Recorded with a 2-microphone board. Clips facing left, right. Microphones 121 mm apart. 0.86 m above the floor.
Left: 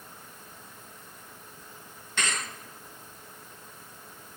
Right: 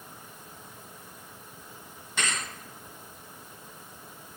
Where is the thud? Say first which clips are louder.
Even; 10° right (ahead or behind), 2.5 m.